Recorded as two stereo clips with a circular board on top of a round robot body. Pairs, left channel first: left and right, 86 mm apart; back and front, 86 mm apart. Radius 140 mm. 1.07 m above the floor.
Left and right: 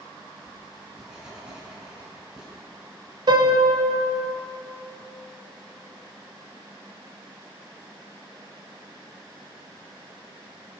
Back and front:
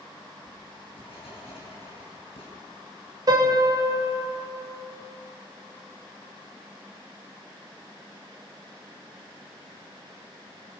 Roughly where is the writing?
Behind.